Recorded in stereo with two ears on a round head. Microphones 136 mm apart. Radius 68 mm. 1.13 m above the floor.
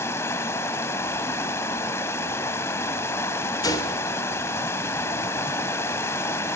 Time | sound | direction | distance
0.0 | running water | 15° left (ahead or behind) | 1.2 m
3.6 | a gunshot | 25° left (ahead or behind) | 3 m